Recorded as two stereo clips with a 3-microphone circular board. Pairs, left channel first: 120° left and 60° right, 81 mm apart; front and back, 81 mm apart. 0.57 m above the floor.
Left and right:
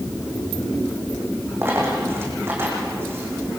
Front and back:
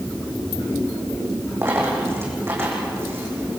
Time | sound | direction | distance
1.6 | a dropped coin | 120° right | 7 m